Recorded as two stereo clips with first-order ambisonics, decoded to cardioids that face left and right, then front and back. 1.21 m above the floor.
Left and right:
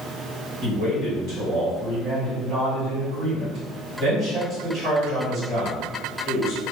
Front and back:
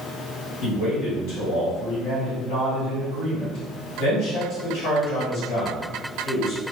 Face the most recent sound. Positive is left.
turn(degrees=-30)